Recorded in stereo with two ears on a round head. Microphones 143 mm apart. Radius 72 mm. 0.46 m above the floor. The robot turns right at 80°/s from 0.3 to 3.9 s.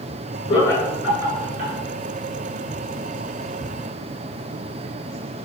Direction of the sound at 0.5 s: 35° left (ahead or behind).